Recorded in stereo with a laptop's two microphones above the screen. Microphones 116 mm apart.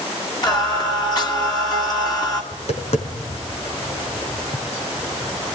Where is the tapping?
65° left (ahead or behind), 4.5 m.